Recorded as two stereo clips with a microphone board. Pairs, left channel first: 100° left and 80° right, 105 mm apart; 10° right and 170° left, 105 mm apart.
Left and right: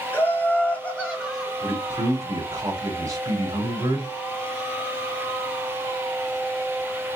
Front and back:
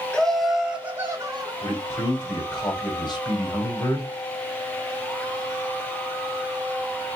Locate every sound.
0.1 s laughter: 60° left, 1.1 m; by 1.5 s straight behind, 1.2 m
1.6 s a man speaking: 35° right, 1.9 m